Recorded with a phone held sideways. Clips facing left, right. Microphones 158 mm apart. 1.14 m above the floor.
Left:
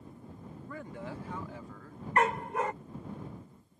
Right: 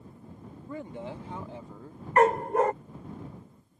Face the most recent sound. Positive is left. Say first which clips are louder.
# right 7 dB
turn(degrees=-45)  # may be behind; listen again after turning